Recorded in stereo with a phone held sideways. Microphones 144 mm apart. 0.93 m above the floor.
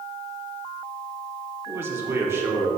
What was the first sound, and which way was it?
A man speaking, 15° right (ahead or behind).